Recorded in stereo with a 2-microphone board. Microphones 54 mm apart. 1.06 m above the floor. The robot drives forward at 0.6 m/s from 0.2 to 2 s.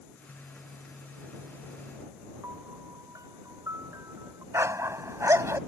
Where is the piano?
75° right (ahead or behind).